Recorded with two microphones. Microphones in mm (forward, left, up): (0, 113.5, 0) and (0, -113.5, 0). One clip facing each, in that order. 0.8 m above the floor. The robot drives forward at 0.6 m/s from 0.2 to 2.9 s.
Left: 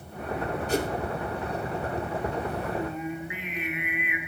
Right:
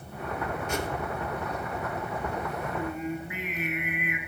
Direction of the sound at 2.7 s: 45° right (ahead or behind).